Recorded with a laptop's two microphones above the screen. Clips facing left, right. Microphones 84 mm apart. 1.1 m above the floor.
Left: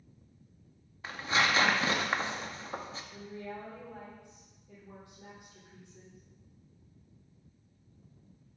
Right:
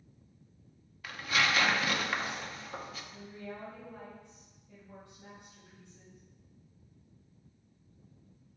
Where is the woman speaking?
75° left (ahead or behind), 3.5 m.